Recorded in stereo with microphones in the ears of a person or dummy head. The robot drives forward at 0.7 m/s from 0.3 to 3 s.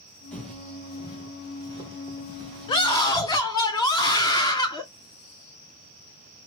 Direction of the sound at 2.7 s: 25° left (ahead or behind).